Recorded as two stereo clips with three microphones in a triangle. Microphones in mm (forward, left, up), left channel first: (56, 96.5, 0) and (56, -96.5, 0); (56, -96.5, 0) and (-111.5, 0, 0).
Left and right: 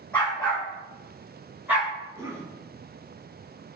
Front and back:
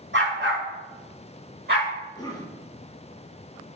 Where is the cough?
45° right, 1.4 m.